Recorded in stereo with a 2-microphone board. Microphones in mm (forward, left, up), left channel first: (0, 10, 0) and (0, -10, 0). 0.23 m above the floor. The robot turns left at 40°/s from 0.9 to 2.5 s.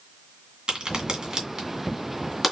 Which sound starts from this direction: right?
A crack, at 0.7 s.